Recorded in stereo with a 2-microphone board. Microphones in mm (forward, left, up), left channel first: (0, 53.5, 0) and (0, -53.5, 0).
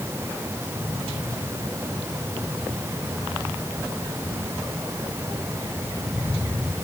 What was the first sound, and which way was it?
Only background noise.